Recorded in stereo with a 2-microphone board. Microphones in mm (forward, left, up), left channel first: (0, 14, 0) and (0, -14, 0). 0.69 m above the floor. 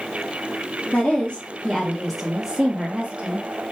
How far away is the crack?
I don't hear a crack.